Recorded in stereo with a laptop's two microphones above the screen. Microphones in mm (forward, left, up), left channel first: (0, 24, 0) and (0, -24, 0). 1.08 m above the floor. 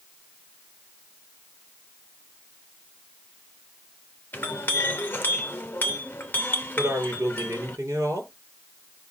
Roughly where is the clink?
Left.